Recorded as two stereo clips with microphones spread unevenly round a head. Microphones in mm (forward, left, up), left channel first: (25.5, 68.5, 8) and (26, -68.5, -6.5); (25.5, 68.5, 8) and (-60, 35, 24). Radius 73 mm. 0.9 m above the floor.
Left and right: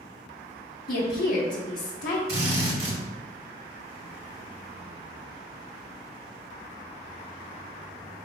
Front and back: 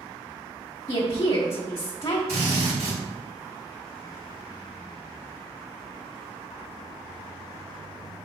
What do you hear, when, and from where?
0.9 s a woman speaking: 65° left, 0.8 m
2.3 s a drill: 115° right, 2.0 m